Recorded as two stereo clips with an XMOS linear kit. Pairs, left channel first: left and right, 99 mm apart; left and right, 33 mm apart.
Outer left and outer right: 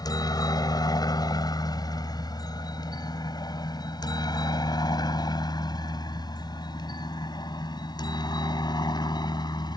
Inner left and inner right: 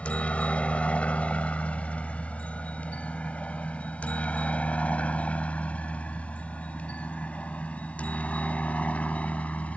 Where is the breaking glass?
No breaking glass in this recording.